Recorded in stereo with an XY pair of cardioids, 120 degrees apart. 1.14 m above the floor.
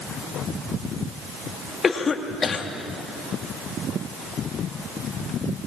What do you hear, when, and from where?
1.8 s a cough: 35° left, 2 m